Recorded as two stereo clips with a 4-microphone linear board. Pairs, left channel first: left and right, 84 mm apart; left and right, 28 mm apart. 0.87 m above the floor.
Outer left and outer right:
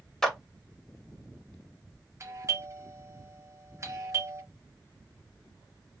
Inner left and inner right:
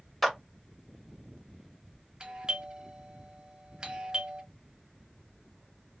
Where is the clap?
5° left (ahead or behind), 0.9 m.